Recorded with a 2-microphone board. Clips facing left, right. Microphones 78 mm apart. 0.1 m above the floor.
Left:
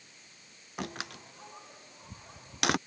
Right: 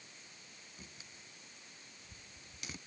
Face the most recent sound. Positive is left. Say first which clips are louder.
# left 21 dB
turn(degrees=80)